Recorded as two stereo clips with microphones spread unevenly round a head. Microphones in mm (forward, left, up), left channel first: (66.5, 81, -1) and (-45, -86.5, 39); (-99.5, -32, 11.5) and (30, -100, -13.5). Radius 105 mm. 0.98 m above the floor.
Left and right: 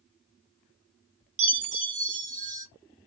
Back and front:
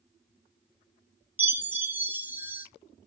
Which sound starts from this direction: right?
A chime, at 1.4 s.